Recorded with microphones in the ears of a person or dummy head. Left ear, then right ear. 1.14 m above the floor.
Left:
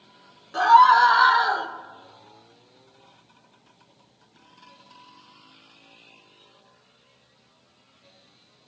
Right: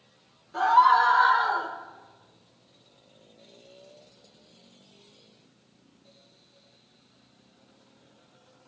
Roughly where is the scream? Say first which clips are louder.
Left 5 dB; left.